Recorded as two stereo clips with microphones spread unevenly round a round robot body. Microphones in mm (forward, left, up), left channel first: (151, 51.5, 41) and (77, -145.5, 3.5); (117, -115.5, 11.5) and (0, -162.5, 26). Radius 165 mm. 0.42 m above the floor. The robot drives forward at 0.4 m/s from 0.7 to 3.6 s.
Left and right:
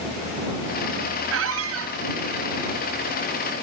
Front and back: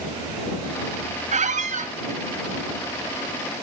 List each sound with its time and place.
1.3 s a squeak: 130° right, 1.2 m; by 1.9 s 135° right, 1.3 m